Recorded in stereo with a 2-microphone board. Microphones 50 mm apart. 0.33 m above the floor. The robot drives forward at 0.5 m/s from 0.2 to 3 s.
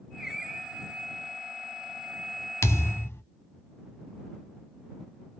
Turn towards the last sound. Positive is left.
turn(degrees=60)  # may be behind; listen again after turning